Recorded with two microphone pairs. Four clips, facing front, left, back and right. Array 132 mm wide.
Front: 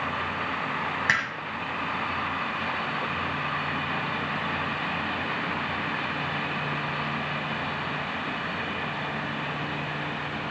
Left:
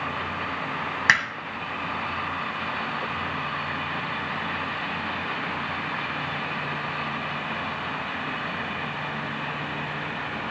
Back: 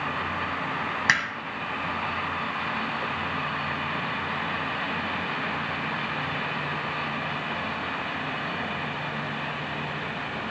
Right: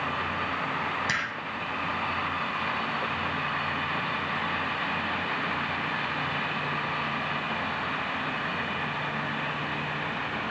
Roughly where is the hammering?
Left.